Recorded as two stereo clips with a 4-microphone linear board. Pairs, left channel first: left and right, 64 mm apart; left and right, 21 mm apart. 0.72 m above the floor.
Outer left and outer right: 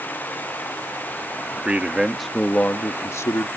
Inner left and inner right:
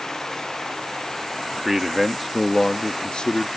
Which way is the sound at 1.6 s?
20° right (ahead or behind).